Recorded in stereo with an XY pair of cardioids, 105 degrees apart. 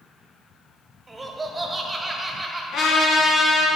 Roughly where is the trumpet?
Left.